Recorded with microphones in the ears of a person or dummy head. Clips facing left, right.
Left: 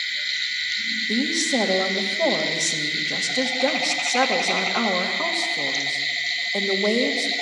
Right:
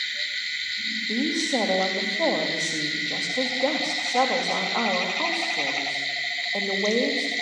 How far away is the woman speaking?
About 3 m.